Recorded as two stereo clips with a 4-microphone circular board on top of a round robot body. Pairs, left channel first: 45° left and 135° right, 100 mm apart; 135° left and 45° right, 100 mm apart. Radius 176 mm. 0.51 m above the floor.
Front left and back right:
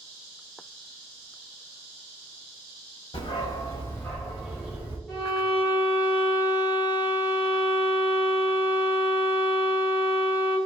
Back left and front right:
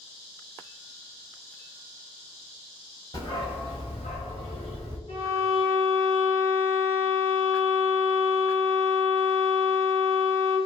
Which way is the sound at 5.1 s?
140° left.